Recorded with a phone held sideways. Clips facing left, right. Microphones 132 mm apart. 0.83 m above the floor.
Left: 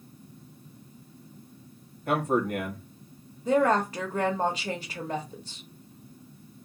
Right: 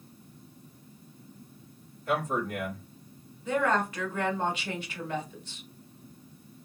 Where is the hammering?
No hammering in this recording.